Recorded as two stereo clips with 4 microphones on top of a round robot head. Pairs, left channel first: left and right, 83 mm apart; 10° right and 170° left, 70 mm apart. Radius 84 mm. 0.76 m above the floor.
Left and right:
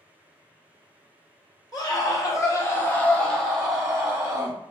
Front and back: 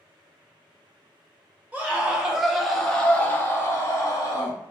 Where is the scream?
110° left, 1.2 m; by 4.6 s 20° right, 1.2 m.